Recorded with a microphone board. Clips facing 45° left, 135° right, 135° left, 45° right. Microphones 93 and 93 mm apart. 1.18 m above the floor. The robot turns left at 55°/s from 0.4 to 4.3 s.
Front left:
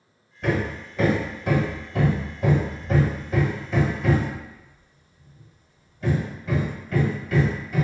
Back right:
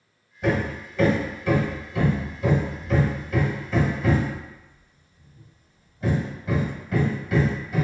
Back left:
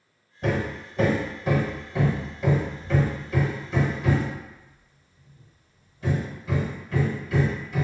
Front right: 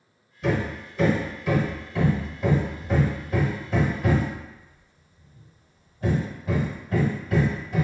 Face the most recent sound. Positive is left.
turn(degrees=-60)